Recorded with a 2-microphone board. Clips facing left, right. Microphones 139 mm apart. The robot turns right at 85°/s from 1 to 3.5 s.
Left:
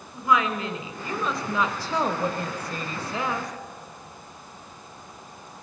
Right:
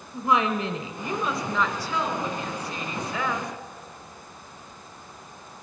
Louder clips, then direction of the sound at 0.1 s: Even; 30° right.